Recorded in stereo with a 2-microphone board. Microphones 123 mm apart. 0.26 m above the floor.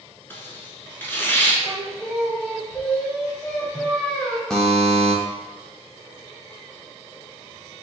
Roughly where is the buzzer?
Centre.